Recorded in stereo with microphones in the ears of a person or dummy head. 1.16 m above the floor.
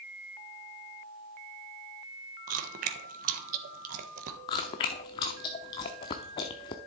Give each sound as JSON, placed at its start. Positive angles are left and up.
{"t": 2.5, "sound": "chewing", "side_deg": -45, "distance_m": 1.2}
{"t": 4.5, "sound": "chewing", "side_deg": 20, "distance_m": 0.7}